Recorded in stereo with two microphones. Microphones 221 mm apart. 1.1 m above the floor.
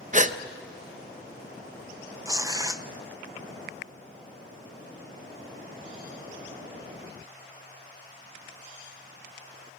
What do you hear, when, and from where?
0.1 s a gasp: 35° right (ahead or behind), 0.7 m
2.2 s tearing paper: 15° right (ahead or behind), 0.8 m